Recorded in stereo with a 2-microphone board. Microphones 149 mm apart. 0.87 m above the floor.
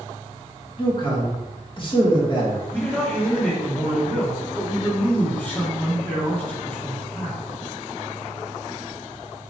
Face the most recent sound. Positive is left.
turn(degrees=10)  # may be behind; listen again after turning